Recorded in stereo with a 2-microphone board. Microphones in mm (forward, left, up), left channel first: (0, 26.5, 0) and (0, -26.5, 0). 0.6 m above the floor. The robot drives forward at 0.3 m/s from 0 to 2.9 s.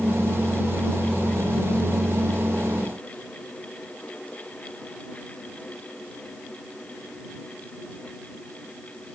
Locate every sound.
Only background noise.